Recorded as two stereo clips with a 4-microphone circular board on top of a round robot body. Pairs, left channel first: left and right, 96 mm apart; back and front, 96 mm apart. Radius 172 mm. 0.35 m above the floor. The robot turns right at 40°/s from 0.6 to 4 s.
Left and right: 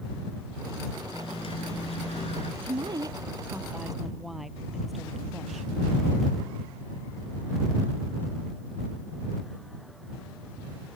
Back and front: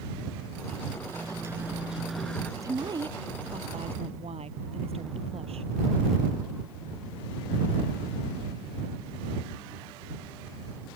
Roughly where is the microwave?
Ahead left.